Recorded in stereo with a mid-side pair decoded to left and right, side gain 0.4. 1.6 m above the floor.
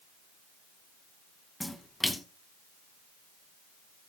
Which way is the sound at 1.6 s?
15° left.